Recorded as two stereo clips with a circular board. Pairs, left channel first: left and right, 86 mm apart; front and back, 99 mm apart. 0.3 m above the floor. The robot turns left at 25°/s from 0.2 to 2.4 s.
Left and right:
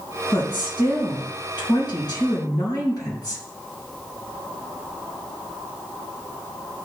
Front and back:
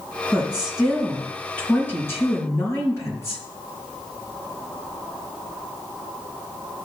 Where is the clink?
I don't hear a clink.